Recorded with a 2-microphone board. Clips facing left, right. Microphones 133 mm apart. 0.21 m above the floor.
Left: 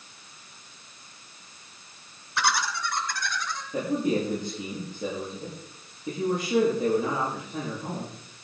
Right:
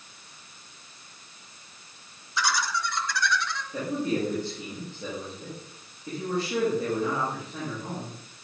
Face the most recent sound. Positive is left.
turn(degrees=20)  # may be behind; listen again after turning